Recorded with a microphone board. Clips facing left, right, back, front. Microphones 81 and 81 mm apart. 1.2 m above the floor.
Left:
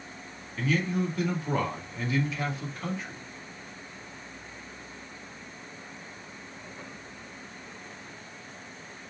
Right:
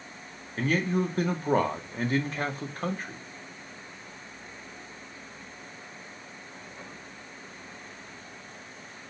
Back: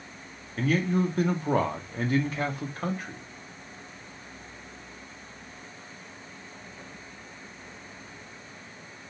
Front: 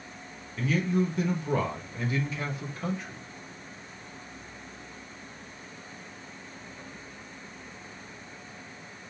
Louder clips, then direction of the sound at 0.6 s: Right 2 dB, back 2 dB; 135° right.